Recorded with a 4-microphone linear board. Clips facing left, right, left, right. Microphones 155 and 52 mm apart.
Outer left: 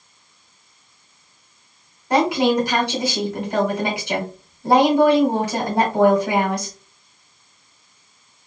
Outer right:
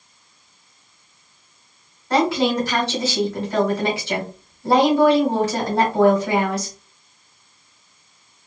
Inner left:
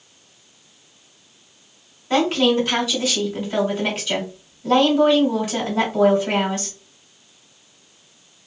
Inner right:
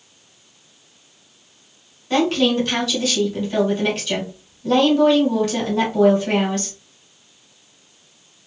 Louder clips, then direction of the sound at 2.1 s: Outer left 1 dB, even; 15° left (ahead or behind).